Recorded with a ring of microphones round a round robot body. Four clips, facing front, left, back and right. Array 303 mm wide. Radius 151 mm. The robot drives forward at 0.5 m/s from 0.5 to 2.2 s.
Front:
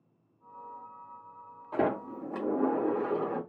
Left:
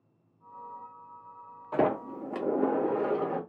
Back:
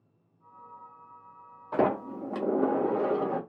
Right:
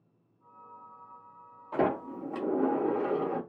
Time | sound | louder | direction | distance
1.7 | a sliding door | left 2 dB, back 3 dB | 140° left | 0.9 m